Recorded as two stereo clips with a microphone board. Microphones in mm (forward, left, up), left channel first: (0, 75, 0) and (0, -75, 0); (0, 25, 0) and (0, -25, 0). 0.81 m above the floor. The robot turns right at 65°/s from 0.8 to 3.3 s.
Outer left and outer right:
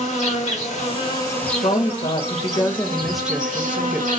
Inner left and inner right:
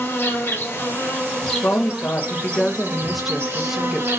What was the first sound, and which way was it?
An insect, 125° left.